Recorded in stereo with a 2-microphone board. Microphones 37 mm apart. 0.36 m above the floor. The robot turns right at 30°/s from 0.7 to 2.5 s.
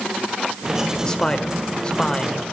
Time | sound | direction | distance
1.0 | a man speaking | 20° left (ahead or behind) | 1.6 m